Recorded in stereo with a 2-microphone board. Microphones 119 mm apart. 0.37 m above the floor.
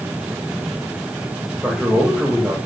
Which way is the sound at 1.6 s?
5° right (ahead or behind).